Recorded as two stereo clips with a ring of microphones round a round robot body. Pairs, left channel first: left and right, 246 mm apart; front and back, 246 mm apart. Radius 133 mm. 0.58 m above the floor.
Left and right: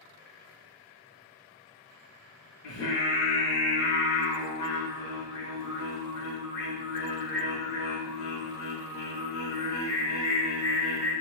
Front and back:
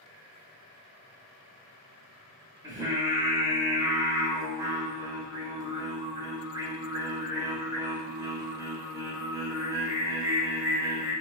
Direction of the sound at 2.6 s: 105° left.